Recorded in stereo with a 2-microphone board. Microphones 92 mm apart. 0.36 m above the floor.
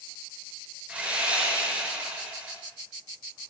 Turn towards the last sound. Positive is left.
turn(degrees=-15)  # may be behind; listen again after turning